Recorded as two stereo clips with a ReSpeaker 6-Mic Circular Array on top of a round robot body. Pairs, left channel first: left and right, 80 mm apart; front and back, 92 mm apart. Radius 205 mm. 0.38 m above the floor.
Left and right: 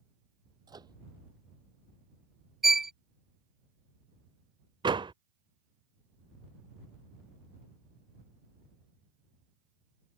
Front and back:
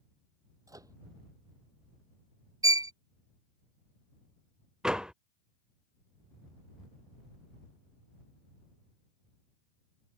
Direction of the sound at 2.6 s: 175° right.